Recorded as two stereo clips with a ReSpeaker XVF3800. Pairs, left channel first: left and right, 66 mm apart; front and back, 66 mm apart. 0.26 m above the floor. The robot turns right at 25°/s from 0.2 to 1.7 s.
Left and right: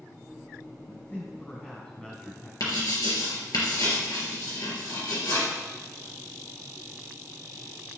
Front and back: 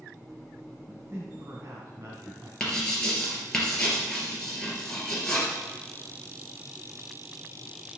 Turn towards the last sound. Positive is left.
turn(degrees=80)